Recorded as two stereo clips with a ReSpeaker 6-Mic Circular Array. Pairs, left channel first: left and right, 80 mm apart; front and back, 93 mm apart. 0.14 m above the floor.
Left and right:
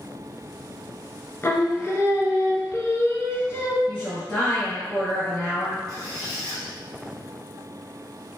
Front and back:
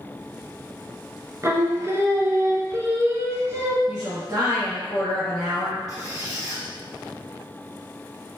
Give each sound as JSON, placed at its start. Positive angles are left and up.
{"t": 1.4, "sound": "singing", "azimuth_deg": 135, "distance_m": 0.7}
{"t": 3.9, "sound": "a woman speaking", "azimuth_deg": 170, "distance_m": 1.7}
{"t": 5.9, "sound": "a squeak", "azimuth_deg": -135, "distance_m": 1.8}